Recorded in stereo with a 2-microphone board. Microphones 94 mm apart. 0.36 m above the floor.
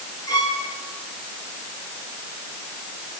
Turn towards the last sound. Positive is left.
turn(degrees=45)  # may be behind; listen again after turning